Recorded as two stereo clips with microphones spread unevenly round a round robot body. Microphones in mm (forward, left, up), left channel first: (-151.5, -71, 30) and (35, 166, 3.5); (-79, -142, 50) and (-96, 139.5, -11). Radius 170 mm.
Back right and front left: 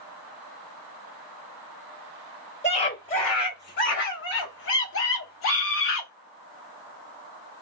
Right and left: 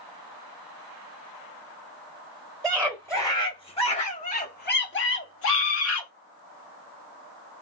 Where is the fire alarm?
No fire alarm in this recording.